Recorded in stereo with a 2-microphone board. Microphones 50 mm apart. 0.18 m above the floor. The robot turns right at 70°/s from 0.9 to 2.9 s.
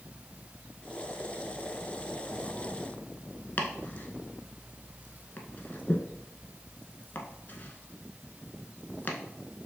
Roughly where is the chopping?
Left.